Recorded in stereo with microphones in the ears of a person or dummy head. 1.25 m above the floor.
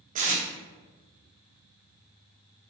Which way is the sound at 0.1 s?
35° right (ahead or behind).